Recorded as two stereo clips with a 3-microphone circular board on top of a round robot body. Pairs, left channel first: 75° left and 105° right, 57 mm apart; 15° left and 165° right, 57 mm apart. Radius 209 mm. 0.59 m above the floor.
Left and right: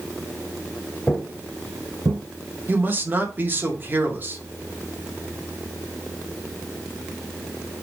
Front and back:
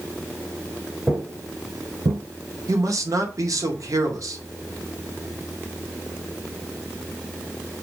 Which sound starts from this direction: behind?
A man speaking, at 2.7 s.